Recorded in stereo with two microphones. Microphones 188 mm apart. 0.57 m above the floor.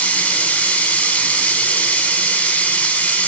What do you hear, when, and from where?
0.0 s running water: 10° left (ahead or behind), 1.3 m